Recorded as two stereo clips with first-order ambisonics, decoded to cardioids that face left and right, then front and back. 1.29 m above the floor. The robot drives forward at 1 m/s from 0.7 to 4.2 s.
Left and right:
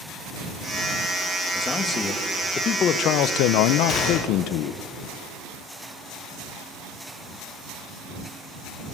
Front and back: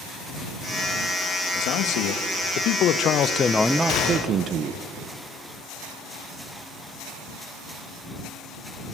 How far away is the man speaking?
About 2.5 m.